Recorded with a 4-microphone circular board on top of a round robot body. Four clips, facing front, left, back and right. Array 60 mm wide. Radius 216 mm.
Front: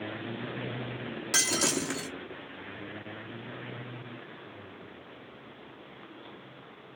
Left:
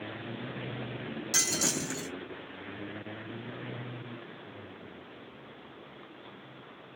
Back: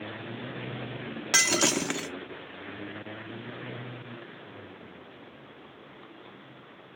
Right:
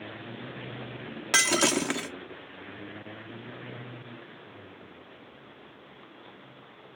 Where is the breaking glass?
120° right, 1.0 m.